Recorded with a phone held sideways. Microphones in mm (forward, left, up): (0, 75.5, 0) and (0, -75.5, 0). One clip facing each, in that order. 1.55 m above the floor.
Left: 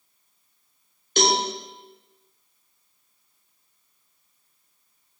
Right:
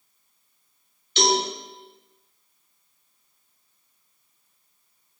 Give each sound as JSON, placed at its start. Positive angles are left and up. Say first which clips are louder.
{"t": 1.2, "sound": "a cowbell", "louder": "even", "side_deg": 50, "distance_m": 0.7}